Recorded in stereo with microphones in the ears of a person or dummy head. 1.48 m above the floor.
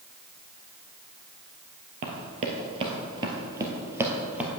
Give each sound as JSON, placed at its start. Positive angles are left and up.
{"t": 2.0, "sound": "running footsteps", "side_deg": -40, "distance_m": 1.8}